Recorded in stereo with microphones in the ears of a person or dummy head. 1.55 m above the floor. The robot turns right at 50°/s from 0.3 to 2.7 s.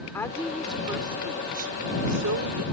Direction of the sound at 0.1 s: 165° left.